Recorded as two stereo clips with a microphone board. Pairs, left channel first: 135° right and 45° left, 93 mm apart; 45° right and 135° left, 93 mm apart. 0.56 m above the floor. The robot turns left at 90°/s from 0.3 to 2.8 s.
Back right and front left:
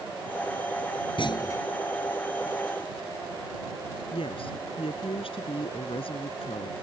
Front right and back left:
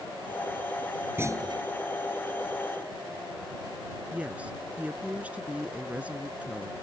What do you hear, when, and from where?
1.2 s a clunk: 160° right; by 1.6 s 160° left
4.1 s a woman speaking: 150° right